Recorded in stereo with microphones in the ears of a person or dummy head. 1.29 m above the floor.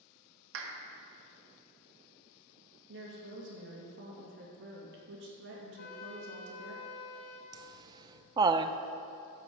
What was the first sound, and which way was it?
A clap, 75° right (ahead or behind).